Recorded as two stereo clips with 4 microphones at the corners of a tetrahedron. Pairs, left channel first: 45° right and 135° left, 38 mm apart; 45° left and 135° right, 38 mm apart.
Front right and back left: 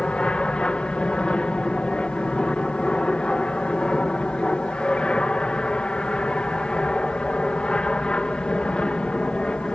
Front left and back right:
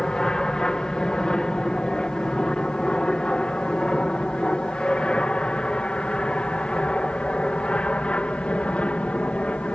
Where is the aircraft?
10° right; by 9.8 s 5° left.